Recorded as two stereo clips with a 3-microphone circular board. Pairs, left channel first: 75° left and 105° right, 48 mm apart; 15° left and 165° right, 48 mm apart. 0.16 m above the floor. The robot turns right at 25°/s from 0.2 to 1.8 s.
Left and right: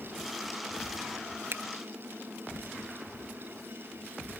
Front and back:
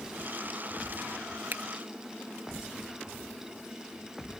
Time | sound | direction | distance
1.5 | a finger snap | 125° right | ?